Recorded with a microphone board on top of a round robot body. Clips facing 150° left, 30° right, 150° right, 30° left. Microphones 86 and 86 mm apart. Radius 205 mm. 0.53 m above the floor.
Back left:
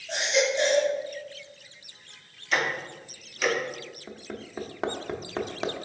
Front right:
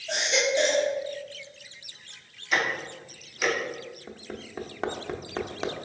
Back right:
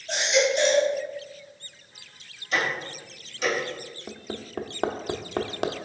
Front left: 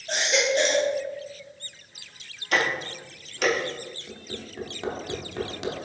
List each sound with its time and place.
0.1 s a baby crying: 15° right, 1.0 m
2.5 s ticking: 55° left, 0.8 m
4.1 s hammering: 125° right, 0.5 m